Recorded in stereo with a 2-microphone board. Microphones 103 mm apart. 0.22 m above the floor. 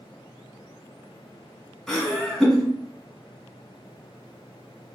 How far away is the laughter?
About 1.6 m.